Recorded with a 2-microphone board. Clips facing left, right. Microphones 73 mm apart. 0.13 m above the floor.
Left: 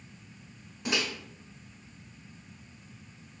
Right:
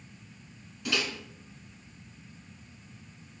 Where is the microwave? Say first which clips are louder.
Even; 25° left (ahead or behind), 0.9 m.